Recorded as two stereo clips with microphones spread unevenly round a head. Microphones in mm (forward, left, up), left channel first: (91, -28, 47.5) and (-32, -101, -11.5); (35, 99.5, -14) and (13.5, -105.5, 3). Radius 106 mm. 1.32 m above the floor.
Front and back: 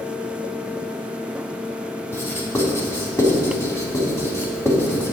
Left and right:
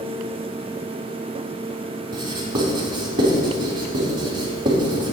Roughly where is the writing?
Ahead right.